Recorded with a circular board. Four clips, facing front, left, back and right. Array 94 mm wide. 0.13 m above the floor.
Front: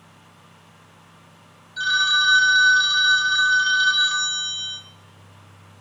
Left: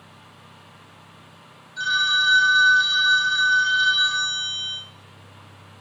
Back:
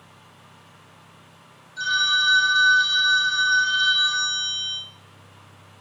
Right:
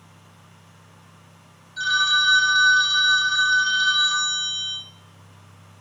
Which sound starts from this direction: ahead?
A phone ringing, at 1.8 s.